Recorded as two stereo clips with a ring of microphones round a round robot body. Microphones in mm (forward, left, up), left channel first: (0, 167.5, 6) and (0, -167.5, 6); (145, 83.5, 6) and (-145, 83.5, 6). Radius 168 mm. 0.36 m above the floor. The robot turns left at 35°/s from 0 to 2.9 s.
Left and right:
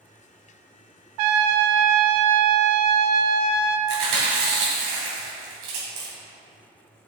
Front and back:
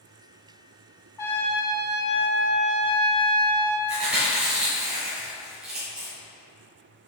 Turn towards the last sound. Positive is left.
turn(degrees=-95)